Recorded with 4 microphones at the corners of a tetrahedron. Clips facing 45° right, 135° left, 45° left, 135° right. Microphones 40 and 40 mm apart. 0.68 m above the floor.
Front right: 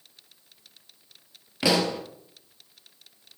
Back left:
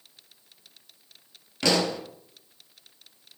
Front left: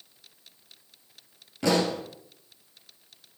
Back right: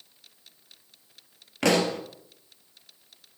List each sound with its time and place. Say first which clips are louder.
1.6 s a pop: front right 1 dB, back right 1 dB; 120° right, 2 m